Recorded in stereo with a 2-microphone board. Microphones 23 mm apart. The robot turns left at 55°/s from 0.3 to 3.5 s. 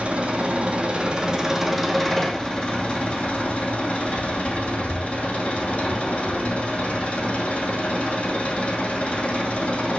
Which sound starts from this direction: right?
An engine running, at 0.0 s.